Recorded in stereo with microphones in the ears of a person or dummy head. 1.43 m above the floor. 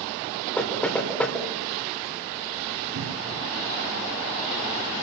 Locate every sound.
0.6 s knocking: 5° left (ahead or behind), 4 m
3.0 s a cupboard door: 75° right (ahead or behind), 4.5 m